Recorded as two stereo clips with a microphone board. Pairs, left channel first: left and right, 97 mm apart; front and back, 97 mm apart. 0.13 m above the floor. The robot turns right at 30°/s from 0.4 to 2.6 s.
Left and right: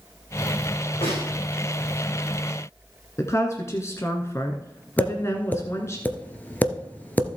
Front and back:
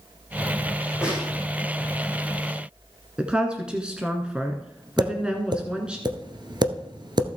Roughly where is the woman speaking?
Left.